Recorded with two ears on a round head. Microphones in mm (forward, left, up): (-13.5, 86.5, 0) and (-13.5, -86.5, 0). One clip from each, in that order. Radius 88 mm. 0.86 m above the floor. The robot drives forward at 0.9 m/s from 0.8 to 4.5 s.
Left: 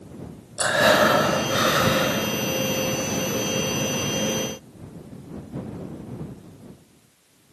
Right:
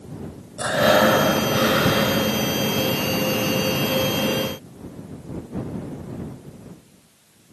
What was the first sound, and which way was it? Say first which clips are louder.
Breathing: even; 50° left (ahead or behind).